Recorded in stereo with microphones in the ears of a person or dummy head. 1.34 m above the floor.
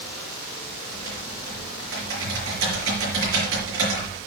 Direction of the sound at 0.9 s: 65° right (ahead or behind).